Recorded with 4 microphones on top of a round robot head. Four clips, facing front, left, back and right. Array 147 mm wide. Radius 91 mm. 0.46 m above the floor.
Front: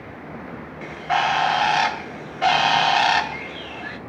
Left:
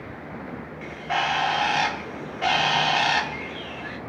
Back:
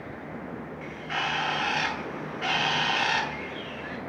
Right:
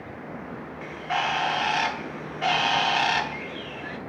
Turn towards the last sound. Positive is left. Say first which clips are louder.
# left 1 dB, front 12 dB
turn(degrees=0)